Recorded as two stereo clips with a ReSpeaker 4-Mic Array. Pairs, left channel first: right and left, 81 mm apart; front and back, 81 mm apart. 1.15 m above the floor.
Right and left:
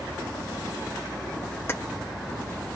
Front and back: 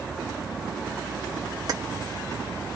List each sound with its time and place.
1.7 s keys jangling: 145° right, 0.7 m